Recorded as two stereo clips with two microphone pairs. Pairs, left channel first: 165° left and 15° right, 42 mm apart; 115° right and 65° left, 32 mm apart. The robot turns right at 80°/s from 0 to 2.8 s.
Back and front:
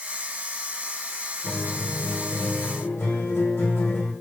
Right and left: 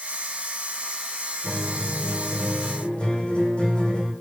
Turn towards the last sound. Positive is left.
turn(degrees=-165)